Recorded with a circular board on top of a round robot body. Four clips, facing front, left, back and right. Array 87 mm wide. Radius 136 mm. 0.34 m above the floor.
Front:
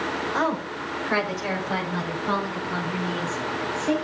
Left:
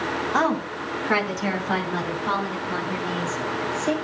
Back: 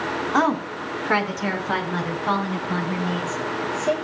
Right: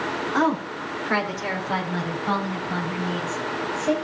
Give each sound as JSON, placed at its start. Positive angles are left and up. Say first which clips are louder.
{"t": 0.3, "sound": "a woman speaking", "louder": "right 1 dB, back 6 dB", "azimuth_deg": 155, "distance_m": 4.0}